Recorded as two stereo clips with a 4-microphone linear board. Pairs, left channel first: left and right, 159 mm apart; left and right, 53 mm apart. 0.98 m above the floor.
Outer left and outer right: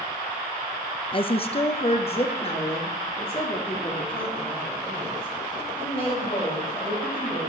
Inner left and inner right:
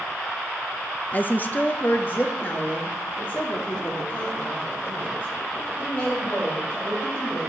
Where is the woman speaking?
35° left (ahead or behind), 0.6 m.